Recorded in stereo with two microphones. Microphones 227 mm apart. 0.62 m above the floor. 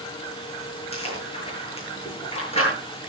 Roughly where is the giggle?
No giggle in this recording.